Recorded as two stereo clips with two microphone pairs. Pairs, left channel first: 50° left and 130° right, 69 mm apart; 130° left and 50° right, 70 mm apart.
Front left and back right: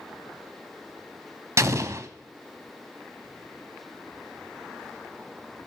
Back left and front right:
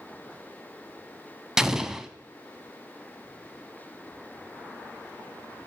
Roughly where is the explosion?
Behind right.